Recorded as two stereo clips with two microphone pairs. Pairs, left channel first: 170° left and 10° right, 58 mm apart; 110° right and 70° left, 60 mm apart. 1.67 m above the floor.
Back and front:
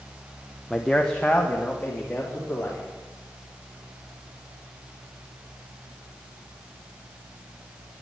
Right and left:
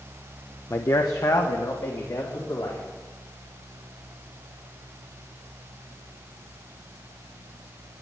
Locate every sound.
0.7 s a man speaking: 110° right, 0.8 m; by 2.9 s 125° right, 4 m